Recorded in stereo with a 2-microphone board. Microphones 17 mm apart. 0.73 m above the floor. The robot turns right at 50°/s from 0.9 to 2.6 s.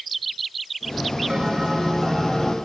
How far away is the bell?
About 4 m.